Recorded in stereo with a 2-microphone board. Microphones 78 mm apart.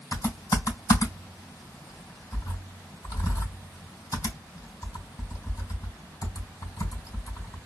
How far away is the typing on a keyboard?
About 3 m.